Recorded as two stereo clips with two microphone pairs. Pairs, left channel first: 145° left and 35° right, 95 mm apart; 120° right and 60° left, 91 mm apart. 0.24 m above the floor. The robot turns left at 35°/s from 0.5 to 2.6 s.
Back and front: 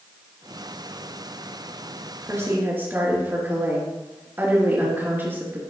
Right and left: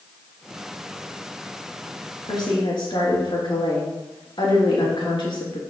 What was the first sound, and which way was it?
A woman speaking, 85° right.